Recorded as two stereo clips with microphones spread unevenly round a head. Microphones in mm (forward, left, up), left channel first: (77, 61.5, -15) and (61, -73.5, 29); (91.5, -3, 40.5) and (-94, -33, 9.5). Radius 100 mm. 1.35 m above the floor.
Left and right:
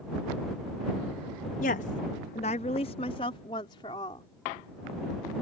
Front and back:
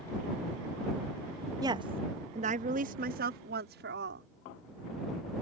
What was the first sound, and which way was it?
A woman speaking, 120° left.